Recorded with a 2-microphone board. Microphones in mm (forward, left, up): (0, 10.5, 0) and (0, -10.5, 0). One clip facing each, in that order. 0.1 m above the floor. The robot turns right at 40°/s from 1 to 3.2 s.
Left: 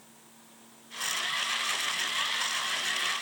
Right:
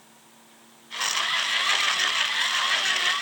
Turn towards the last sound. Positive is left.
No sound to turn to.